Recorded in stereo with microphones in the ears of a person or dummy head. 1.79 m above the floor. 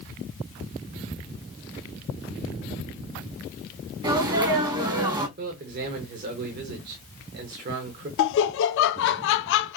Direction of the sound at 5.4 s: 60° right (ahead or behind).